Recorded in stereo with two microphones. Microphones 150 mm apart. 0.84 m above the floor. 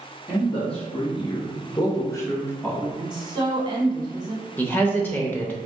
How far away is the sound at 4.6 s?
About 0.8 m.